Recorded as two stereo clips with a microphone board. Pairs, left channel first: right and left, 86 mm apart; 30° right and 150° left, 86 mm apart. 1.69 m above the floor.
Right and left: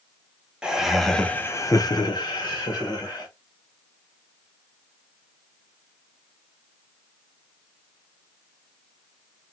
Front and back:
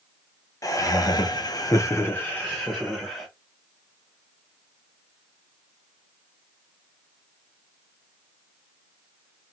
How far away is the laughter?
About 1.1 m.